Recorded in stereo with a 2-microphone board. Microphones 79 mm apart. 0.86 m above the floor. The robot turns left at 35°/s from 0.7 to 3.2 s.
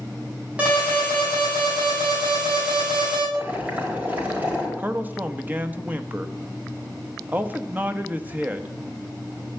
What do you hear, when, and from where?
0.6 s an alarm: 15° right, 8 m; by 3.2 s 105° right, 8 m
3.3 s boiling: 25° right (ahead or behind), 4.5 m
4.8 s a man speaking: 20° right (ahead or behind), 1.2 m